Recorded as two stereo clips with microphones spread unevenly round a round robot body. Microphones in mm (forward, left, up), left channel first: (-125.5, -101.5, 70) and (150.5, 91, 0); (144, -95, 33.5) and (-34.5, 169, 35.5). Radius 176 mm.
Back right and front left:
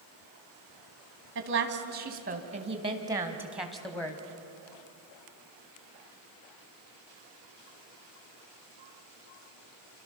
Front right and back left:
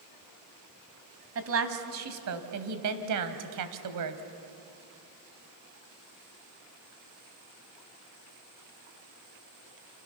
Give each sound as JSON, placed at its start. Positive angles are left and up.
{"t": 1.4, "sound": "a woman speaking", "azimuth_deg": 80, "distance_m": 2.5}